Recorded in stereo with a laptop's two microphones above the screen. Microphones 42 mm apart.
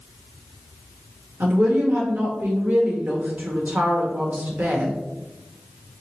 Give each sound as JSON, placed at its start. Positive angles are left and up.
{"t": 1.4, "sound": "a woman speaking", "side_deg": -45, "distance_m": 1.2}